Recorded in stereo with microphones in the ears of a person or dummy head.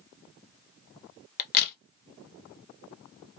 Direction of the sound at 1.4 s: 45° left (ahead or behind).